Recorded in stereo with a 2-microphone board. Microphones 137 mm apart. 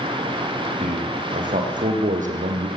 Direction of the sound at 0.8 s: 80° right.